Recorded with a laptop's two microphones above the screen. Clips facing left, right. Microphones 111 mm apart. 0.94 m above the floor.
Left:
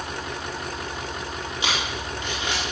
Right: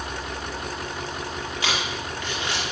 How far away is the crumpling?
About 1.7 m.